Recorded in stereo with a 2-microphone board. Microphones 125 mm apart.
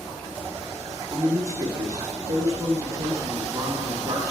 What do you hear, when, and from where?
1.1 s a man speaking: 30° right (ahead or behind), 1.2 m